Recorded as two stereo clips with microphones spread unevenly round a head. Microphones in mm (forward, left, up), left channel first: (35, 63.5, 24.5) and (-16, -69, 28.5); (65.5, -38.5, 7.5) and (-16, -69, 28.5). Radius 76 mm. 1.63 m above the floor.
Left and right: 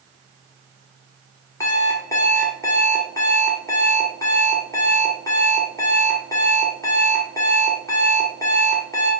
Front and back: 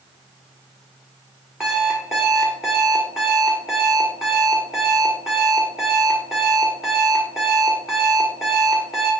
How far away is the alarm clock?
About 1.5 m.